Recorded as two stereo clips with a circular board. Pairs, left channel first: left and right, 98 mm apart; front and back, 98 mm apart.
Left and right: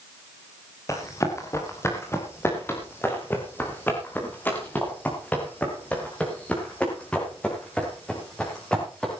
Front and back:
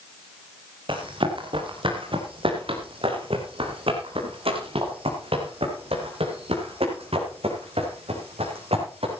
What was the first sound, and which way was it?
Running footsteps, 150° left.